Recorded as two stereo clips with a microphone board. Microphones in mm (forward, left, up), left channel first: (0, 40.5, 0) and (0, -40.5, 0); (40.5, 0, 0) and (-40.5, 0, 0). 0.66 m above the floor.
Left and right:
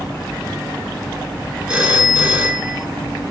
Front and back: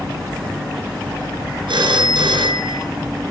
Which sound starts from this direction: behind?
A phone ringing, at 1.7 s.